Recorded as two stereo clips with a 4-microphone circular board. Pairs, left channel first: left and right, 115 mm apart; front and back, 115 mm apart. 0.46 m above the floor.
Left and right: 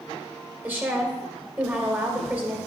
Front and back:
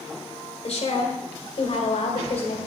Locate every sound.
0.6 s a woman speaking: 20° right, 1.6 m